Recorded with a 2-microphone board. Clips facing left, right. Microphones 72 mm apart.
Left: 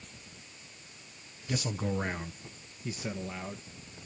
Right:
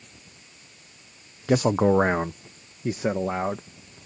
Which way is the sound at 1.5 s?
90° right.